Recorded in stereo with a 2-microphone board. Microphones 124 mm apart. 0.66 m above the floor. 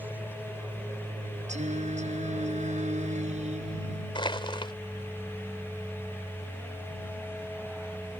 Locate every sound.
0.0 s an aircraft: 15° right (ahead or behind); by 8.2 s 10° right (ahead or behind)
1.5 s singing: 75° right (ahead or behind)
4.2 s crushing: 45° left (ahead or behind)